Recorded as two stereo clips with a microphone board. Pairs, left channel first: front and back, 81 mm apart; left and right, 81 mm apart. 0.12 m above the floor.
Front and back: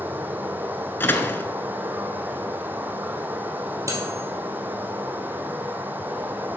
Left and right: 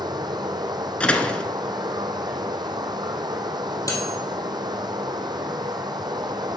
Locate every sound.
0.0 s running water: 115° right, 0.9 m
1.0 s a door slam: 30° left, 0.8 m
3.9 s cutlery clinking: 130° left, 2.5 m